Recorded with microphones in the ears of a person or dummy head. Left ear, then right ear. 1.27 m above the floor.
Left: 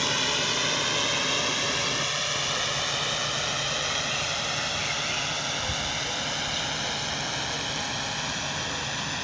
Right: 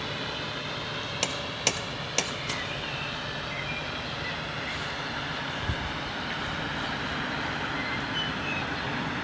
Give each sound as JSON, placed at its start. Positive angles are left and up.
{"t": 0.0, "sound": "a drone", "side_deg": 55}